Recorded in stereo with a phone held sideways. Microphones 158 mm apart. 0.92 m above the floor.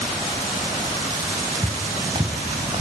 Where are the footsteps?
25° right (ahead or behind), 4 m; by 2.8 s 35° right (ahead or behind), 3.5 m.